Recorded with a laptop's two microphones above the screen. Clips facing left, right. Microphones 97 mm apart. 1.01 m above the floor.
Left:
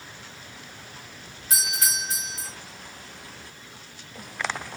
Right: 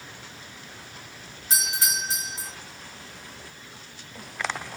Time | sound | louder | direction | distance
1.5 | a doorbell | right 1 dB | 25° right (ahead or behind) | 1.9 m